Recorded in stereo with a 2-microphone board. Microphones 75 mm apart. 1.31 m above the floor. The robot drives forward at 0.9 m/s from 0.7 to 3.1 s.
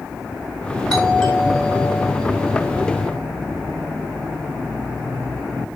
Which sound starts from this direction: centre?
A doorbell, at 0.9 s.